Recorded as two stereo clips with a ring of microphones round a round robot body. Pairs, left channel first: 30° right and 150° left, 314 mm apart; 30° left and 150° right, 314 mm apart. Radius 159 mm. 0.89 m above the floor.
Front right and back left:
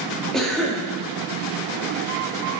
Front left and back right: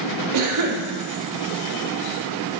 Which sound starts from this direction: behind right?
A cough, at 0.3 s.